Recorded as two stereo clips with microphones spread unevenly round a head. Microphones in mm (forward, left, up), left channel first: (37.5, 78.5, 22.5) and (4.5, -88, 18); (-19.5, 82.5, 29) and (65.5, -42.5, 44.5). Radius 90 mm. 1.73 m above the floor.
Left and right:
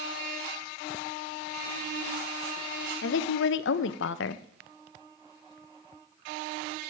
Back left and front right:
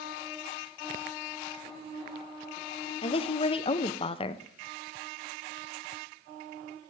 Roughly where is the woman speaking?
Ahead left.